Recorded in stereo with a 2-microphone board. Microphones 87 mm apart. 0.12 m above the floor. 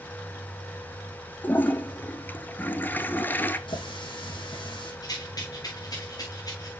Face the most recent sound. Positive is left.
turn(degrees=45)  # may be behind; listen again after turning